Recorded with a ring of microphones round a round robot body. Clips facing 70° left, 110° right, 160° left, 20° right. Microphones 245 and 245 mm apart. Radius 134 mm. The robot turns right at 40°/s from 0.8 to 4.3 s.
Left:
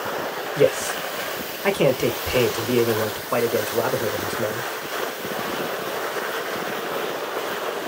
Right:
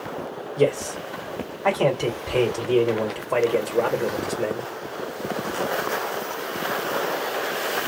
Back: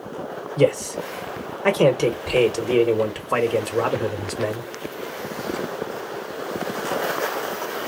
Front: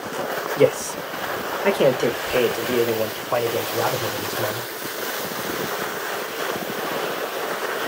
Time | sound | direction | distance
0.6 | a man speaking | 30° left | 1.1 m